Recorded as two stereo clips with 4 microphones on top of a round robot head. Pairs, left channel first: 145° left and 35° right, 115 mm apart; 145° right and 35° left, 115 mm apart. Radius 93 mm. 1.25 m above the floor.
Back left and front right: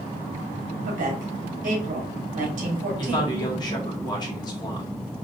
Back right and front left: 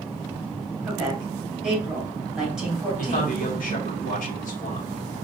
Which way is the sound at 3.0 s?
160° right.